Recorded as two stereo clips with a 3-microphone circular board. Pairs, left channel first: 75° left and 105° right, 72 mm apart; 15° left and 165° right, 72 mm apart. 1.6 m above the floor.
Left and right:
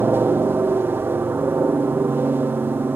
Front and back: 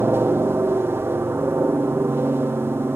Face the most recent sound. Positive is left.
turn(degrees=-140)